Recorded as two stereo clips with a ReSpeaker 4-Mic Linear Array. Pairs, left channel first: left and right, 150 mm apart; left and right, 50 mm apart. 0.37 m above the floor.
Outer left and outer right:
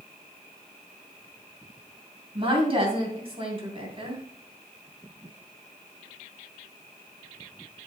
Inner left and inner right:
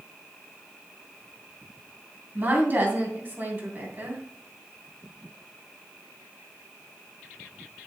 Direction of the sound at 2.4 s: 40° right (ahead or behind).